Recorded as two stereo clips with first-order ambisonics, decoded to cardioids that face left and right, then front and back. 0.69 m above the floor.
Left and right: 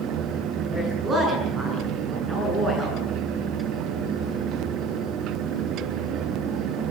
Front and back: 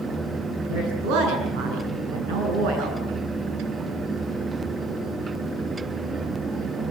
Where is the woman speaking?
160° right, 8 m.